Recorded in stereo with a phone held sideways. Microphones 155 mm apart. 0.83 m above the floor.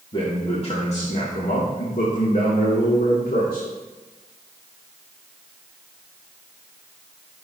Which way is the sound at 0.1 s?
35° left (ahead or behind).